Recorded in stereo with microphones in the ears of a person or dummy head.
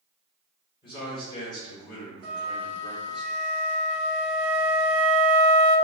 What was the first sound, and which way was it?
A man speaking, 30° left (ahead or behind).